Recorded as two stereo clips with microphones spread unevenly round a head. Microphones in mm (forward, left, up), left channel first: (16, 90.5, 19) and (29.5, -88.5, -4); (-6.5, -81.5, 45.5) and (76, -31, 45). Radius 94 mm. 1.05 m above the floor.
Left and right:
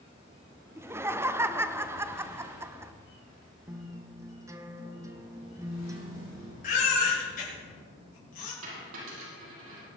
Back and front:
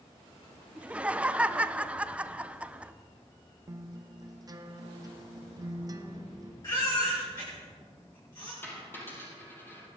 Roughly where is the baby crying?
Behind left.